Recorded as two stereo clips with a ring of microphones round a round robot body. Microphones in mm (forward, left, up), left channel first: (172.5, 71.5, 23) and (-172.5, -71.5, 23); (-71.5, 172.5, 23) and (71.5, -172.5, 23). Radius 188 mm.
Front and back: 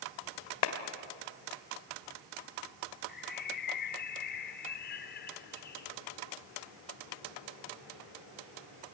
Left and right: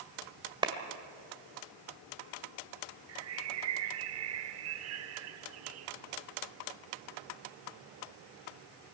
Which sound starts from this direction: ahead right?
A bird, at 3.1 s.